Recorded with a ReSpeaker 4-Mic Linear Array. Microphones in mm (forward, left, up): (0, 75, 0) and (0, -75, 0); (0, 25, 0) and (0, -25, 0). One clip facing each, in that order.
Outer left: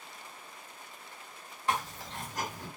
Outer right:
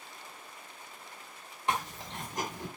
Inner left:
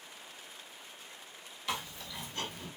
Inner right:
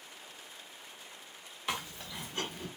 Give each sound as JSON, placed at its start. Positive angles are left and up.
{"t": 1.7, "sound": "chewing", "side_deg": -20, "distance_m": 1.4}